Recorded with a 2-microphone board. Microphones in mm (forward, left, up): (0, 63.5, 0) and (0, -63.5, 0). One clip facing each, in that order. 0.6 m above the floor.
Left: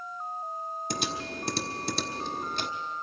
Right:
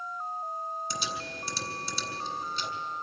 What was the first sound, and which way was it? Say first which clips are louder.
Typing on a keyboard: left 3 dB; 60° left (ahead or behind).